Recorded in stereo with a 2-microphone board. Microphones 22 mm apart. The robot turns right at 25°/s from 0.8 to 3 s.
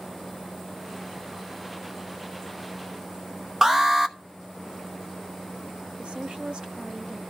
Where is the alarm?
20° right (ahead or behind), 0.8 m.